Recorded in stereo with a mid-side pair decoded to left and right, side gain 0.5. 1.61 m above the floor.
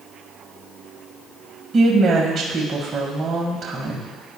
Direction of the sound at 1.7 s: 40° right.